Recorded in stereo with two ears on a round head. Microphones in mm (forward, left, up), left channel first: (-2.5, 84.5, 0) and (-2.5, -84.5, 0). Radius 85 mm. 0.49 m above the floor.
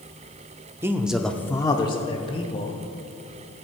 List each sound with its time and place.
0.8 s a man speaking: 15° right (ahead or behind), 0.7 m; by 2.8 s 30° left (ahead or behind), 1.4 m